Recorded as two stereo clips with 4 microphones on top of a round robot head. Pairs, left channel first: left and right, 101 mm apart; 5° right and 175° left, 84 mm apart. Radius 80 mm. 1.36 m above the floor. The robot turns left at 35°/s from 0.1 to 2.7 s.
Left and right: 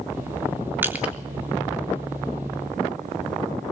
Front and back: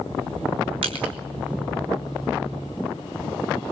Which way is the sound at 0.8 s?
160° right.